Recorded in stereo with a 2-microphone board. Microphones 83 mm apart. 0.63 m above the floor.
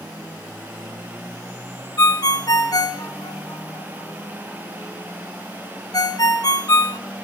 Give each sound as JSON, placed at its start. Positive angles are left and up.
{"t": 2.0, "sound": "a ringtone", "side_deg": 45, "distance_m": 0.8}